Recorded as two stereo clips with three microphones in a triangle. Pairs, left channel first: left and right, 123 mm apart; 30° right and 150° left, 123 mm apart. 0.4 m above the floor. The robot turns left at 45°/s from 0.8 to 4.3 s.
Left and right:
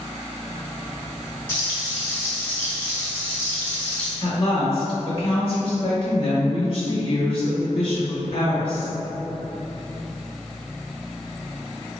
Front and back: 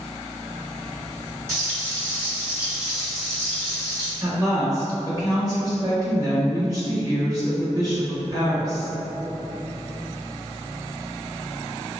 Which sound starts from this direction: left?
A woman speaking, at 4.2 s.